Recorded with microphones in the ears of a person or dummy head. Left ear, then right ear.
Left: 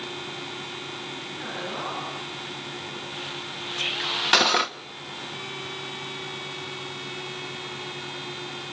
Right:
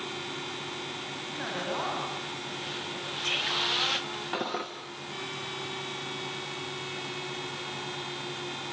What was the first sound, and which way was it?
A man speaking, 50° right (ahead or behind).